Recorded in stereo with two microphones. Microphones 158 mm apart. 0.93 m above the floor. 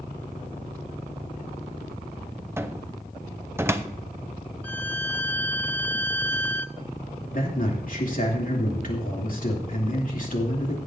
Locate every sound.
2.6 s a cupboard door: 15° right (ahead or behind), 0.6 m
4.6 s a violin: 10° left (ahead or behind), 0.5 m
7.3 s a man speaking: 55° left (ahead or behind), 2.5 m